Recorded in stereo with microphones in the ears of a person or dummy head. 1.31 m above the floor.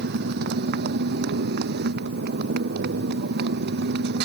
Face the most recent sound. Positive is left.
turn(degrees=-60)  # may be behind; listen again after turning